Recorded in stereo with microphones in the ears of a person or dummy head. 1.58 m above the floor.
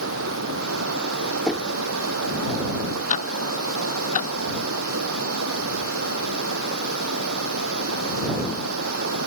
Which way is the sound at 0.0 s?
75° right (ahead or behind).